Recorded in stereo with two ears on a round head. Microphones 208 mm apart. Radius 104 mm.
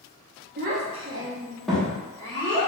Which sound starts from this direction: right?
A child speaking, at 0.6 s.